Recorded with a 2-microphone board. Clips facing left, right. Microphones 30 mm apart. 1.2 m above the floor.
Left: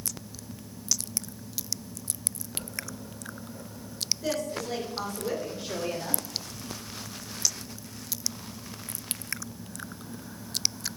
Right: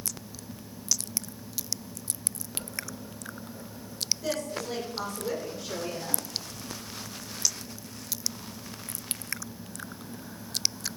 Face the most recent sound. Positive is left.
turn(degrees=45)  # may be behind; listen again after turning